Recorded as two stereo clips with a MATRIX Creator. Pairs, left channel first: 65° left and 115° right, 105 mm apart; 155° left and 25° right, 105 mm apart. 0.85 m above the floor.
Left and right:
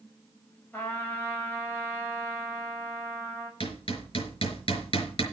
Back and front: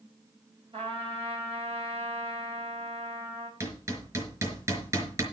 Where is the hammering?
40° left, 4.5 m.